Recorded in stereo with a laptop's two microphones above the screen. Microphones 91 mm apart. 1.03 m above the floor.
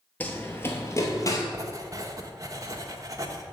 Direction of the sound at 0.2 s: 15° left (ahead or behind).